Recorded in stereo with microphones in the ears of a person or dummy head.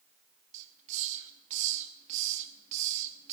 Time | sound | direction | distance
0.5 | a hiss | 40° right (ahead or behind) | 1.1 m